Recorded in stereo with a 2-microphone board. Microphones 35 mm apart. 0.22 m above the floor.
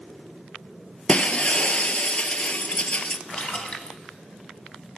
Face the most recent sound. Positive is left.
turn(degrees=40)  # may be behind; listen again after turning